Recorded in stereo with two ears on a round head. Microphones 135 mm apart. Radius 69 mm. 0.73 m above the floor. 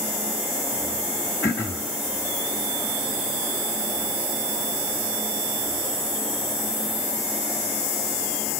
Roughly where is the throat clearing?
Centre.